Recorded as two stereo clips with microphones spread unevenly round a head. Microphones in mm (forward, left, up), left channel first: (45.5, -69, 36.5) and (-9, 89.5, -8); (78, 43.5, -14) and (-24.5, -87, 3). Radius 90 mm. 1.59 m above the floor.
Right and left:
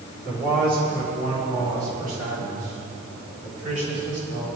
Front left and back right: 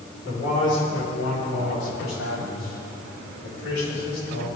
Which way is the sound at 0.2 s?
75° left.